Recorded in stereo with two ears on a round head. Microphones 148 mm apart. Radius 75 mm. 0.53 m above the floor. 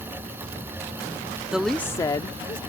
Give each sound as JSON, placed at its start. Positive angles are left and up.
{"t": 1.5, "sound": "a woman speaking", "side_deg": -5}